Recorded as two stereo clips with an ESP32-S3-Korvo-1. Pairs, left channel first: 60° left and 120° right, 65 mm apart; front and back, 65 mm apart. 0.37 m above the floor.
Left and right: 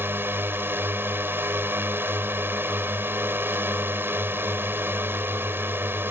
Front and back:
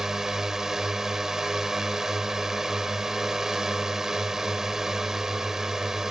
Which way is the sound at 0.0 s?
100° right.